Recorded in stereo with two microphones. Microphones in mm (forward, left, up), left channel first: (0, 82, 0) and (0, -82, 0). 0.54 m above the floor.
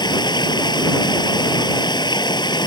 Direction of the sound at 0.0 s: 25° left (ahead or behind).